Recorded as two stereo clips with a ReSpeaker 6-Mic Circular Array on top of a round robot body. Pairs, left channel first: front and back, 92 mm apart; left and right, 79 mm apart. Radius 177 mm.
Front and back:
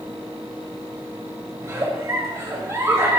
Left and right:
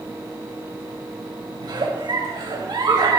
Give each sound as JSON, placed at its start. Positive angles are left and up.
{"t": 1.6, "sound": "a giggle", "azimuth_deg": -120, "distance_m": 3.5}